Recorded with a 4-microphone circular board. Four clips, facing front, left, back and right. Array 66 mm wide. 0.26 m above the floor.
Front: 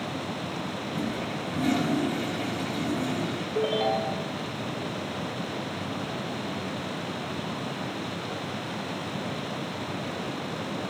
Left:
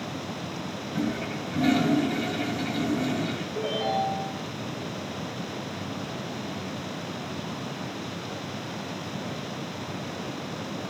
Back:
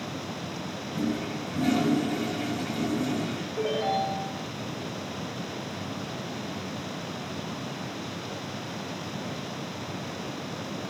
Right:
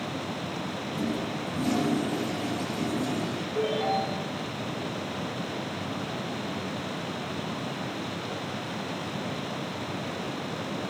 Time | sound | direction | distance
0.9 | a toilet flushing | 85° left | 4 m
3.5 | a ringtone | 5° right | 6 m